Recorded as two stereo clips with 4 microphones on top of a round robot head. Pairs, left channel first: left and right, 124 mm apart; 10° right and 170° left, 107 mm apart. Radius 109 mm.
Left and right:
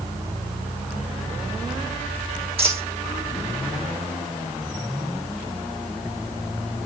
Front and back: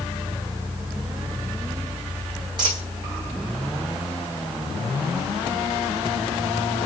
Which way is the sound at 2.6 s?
130° right.